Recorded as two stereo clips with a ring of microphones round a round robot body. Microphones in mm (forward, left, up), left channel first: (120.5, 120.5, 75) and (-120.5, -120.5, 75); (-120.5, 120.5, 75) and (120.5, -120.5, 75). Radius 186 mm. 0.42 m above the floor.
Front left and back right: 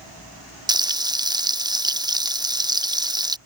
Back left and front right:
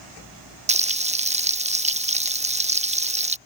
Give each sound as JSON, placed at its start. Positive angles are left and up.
{"t": 0.7, "sound": "frying", "azimuth_deg": -75}